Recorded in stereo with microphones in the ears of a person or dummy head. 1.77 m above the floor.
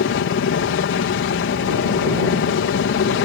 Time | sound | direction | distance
0.0 | a helicopter | 55° left (ahead or behind) | ?